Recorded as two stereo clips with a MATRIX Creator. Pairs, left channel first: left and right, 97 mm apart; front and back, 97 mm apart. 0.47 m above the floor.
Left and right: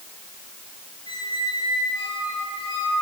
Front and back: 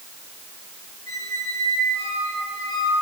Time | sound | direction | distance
1.1 | a squeak | 55° left | 5 m